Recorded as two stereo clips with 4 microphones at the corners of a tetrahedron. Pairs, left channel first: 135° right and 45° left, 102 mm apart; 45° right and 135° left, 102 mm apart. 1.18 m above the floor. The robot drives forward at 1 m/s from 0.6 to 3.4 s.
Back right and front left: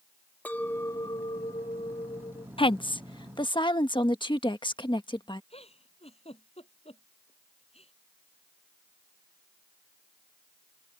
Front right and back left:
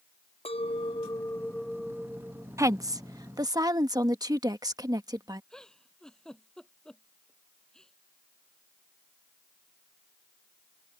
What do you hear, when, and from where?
0.5 s a clink: 60° right; by 2.5 s 150° right
2.6 s a woman speaking: 165° right; by 5.4 s 175° right
5.5 s a giggle: 130° right